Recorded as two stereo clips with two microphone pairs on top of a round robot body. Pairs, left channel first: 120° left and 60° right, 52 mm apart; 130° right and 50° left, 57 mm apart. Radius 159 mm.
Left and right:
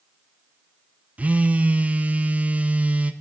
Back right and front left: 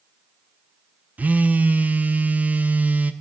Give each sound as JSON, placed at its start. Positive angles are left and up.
{"t": 1.2, "sound": "a phone buzzing", "azimuth_deg": 0, "distance_m": 0.6}